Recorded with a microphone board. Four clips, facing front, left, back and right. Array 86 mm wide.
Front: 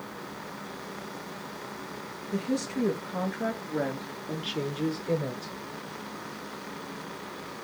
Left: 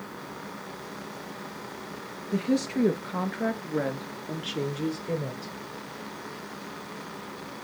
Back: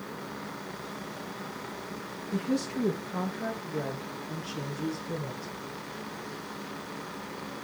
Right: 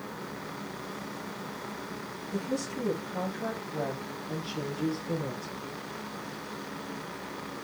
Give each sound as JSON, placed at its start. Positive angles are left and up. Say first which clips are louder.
{"t": 2.3, "sound": "a woman speaking", "louder": "left 7 dB, even", "azimuth_deg": 90, "distance_m": 3.0}